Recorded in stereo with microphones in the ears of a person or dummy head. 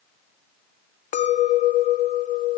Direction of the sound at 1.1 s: 40° left (ahead or behind).